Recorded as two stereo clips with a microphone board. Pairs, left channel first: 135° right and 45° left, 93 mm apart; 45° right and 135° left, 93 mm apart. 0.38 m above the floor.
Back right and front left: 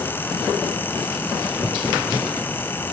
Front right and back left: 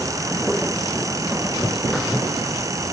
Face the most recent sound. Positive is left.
No sound to turn to.